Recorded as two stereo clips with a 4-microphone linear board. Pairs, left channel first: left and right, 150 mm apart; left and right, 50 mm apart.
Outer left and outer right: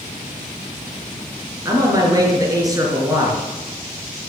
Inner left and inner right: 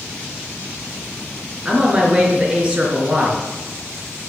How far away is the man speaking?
About 4 m.